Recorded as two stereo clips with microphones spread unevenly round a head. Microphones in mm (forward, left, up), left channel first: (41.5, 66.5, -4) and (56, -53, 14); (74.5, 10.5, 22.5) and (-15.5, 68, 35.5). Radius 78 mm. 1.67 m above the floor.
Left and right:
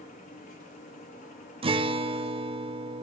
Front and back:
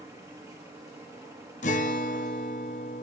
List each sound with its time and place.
0.0 s a machine running: 90° left, 3 m
1.6 s a guitar: 50° right, 0.8 m